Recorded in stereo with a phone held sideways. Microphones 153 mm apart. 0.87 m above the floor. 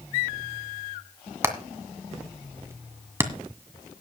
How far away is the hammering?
About 1.7 m.